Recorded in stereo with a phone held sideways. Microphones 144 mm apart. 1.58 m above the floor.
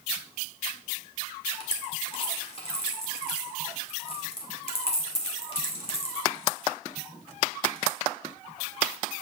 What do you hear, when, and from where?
1.6 s a dropped coin: 40° left (ahead or behind), 1.5 m